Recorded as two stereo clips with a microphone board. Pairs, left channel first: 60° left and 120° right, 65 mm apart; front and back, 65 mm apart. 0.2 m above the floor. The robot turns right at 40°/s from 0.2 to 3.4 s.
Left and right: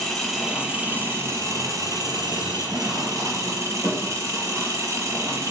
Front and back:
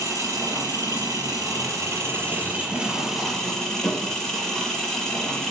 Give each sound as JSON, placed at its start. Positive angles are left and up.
{"t": 0.0, "sound": "an engine running", "azimuth_deg": 150, "distance_m": 4.0}